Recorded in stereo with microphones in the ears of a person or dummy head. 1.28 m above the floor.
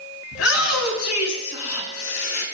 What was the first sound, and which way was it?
A shout, 80° left.